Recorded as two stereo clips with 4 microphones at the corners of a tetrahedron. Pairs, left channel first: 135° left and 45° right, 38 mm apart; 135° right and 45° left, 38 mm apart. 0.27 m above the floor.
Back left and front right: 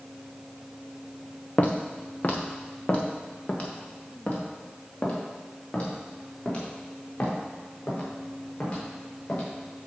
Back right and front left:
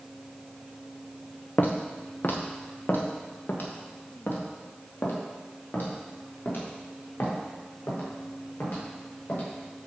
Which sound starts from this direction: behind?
Footsteps, at 1.6 s.